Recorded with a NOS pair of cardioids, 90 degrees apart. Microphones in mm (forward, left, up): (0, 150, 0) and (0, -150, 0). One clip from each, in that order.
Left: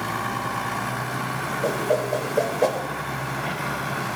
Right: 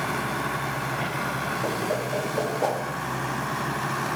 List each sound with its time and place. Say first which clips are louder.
1.6 s a whoosh: left 4 dB; 15° left, 0.9 m